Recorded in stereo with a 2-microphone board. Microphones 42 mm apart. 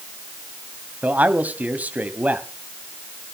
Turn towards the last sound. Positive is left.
turn(degrees=-35)  # may be behind; listen again after turning